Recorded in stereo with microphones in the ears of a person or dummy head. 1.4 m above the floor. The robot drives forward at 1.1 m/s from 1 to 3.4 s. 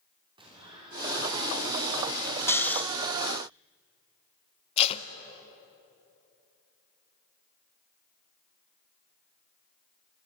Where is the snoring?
15° left (ahead or behind), 0.7 m; by 2.8 s 10° left (ahead or behind), 1.1 m.